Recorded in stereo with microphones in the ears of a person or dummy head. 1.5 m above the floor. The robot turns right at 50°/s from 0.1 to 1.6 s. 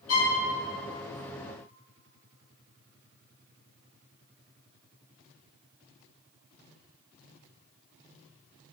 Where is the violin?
70° left (ahead or behind), 3 m; by 0.4 s 80° left, 3 m.